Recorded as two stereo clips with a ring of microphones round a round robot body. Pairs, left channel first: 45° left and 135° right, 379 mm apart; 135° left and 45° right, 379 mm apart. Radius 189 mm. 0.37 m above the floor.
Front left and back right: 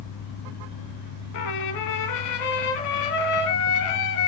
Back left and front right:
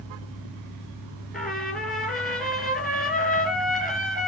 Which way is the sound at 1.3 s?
45° left.